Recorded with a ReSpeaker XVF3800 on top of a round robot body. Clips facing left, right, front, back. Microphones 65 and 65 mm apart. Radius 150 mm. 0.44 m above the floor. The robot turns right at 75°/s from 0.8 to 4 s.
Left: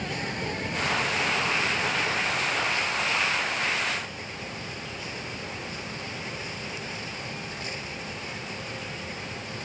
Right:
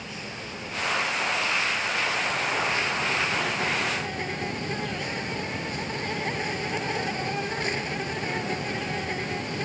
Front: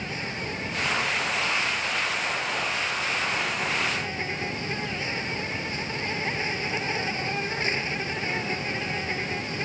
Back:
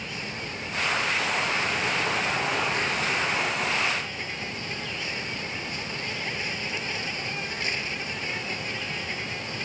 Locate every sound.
0.0 s an insect: 60° left; by 9.7 s 60° right